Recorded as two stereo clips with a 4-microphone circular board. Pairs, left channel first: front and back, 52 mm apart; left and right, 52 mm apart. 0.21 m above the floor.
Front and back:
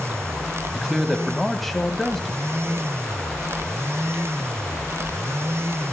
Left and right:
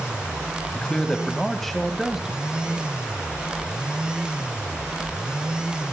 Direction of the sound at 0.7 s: 105° left.